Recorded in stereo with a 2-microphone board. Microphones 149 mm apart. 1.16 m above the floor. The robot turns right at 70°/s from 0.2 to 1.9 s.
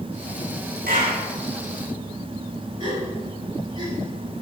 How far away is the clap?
About 8 m.